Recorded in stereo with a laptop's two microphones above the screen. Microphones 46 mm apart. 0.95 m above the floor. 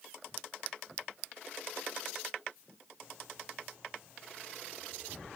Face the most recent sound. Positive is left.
No sound to turn to.